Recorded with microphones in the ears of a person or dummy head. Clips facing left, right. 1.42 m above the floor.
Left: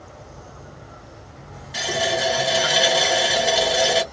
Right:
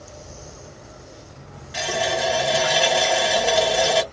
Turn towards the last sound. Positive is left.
turn(degrees=5)  # may be behind; listen again after turning